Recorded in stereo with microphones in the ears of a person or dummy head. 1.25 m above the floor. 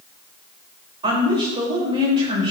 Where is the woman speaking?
25° right (ahead or behind), 6 m.